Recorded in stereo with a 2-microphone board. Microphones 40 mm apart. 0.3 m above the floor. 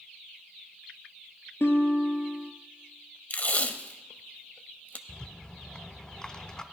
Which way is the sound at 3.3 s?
40° left (ahead or behind).